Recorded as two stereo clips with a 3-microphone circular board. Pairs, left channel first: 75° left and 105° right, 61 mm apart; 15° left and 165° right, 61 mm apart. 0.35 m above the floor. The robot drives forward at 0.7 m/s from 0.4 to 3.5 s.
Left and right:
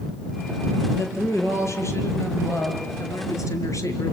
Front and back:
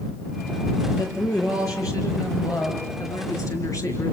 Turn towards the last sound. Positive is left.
turn(degrees=45)